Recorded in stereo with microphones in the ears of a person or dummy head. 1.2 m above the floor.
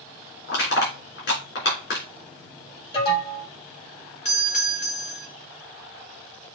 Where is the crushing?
55° left (ahead or behind), 3 m.